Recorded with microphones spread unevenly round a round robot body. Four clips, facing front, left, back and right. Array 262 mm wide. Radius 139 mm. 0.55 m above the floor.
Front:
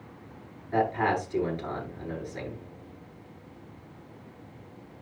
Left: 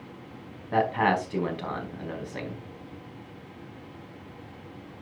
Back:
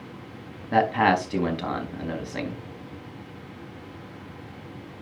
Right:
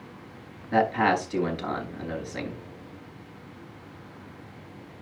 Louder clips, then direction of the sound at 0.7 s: Right 1 dB, back 5 dB; straight behind.